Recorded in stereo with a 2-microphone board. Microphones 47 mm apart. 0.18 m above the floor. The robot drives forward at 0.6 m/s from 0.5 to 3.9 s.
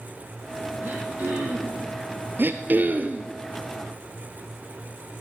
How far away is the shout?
I don't hear a shout.